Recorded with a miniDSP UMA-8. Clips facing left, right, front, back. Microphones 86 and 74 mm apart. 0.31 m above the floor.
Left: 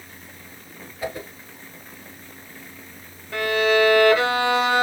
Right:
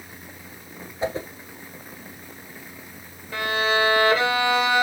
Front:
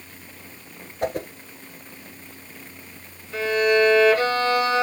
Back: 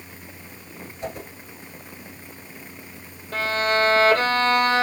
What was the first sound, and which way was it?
A whoosh, 25° right.